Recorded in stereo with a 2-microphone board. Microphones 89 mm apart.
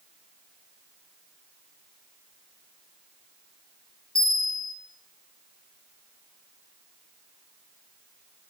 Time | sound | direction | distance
4.2 | a bell | 70° left (ahead or behind) | 3 m